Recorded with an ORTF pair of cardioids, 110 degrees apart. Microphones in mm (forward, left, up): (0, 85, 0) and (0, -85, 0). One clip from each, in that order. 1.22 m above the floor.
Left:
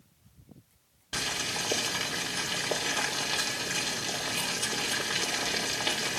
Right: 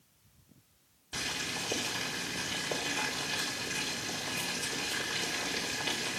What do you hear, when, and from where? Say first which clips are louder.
1.1 s boiling: left 4 dB; 45° left, 3 m